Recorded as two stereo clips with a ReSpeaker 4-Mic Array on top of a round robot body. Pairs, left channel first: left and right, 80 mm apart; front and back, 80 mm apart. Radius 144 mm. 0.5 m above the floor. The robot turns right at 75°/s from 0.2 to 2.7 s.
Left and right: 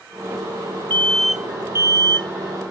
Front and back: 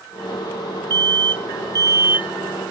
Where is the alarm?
155° left; by 2.3 s 105° right.